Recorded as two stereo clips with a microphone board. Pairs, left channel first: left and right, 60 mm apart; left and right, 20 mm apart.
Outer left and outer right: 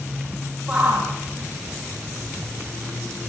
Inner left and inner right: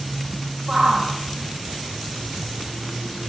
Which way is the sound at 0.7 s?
20° right (ahead or behind).